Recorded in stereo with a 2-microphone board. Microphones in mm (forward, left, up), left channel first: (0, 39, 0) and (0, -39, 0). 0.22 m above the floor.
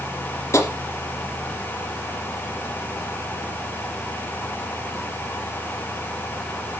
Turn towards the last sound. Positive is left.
turn(degrees=40)  # may be behind; listen again after turning